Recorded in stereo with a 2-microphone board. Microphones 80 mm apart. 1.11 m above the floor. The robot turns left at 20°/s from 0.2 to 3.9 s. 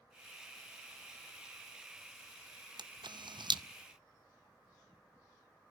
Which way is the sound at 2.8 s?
70° right (ahead or behind).